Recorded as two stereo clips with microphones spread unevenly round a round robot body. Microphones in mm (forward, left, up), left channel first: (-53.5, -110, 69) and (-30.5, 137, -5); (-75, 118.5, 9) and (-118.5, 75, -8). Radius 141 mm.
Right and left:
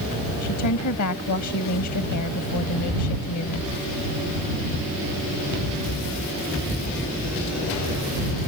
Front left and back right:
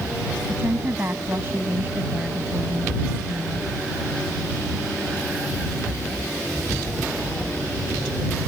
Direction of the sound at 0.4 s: 70° right.